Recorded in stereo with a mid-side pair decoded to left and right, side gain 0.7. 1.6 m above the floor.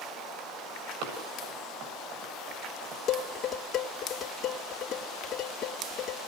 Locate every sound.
1.0 s running footsteps: 65° right, 7 m
3.1 s dishes clattering: 40° left, 2.5 m